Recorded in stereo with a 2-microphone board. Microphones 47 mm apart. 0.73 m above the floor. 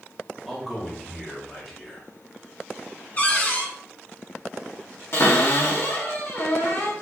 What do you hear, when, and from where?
0.5 s a man speaking: centre (ahead or behind), 1.4 m
3.2 s a cupboard door: 30° left (ahead or behind), 0.8 m
5.1 s a cupboard door: 55° left (ahead or behind), 1.3 m